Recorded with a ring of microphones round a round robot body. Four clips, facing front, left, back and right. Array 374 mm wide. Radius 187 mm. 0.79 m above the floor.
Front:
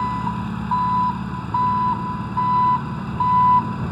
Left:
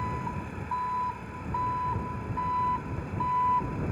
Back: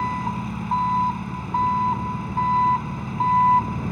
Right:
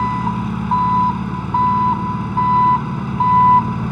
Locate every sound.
0.0 s an engine running: 85° right